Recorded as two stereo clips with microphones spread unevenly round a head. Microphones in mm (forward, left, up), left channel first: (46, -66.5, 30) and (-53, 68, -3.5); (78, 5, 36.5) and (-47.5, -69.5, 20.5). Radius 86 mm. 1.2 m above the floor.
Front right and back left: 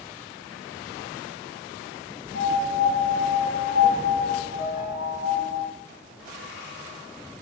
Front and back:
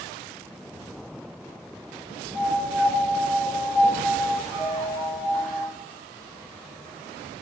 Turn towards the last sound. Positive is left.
turn(degrees=-10)